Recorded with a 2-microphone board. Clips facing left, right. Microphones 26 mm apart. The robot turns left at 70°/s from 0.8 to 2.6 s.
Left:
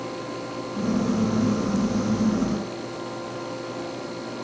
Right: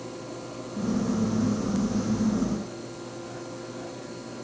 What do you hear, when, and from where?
Only background noise.